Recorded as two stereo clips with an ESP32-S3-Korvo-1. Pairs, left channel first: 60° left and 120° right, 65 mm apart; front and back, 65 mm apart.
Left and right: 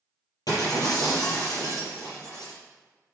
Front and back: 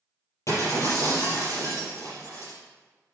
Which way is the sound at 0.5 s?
40° left.